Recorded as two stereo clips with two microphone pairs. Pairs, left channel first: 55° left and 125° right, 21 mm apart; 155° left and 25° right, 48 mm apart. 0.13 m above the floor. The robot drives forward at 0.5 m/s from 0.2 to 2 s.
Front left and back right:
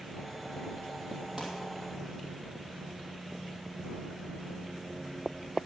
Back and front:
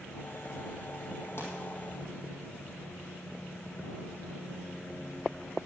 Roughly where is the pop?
Behind.